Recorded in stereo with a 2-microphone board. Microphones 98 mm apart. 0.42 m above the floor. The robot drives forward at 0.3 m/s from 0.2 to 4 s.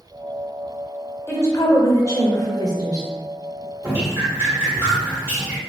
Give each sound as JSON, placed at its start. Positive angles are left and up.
{"t": 1.3, "sound": "a woman speaking", "side_deg": 30, "distance_m": 1.1}
{"t": 3.8, "sound": "dripping", "side_deg": -25, "distance_m": 1.4}